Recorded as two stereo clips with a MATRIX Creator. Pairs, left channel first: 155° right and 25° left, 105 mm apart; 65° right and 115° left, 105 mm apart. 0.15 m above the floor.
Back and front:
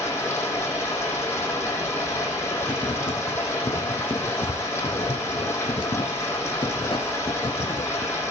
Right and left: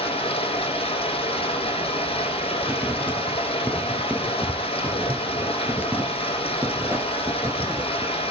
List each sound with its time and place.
0.0 s running water: 90° right, 6 m
2.6 s writing: straight behind, 2.5 m